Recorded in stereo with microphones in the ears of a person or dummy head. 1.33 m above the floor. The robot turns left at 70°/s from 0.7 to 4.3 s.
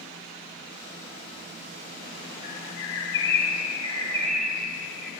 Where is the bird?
135° left, 2.5 m; by 5.1 s straight ahead, 2.5 m.